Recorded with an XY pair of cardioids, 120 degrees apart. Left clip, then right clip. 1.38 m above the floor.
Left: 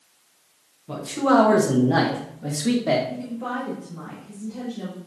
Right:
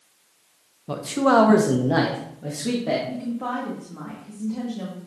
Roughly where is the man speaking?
Ahead right.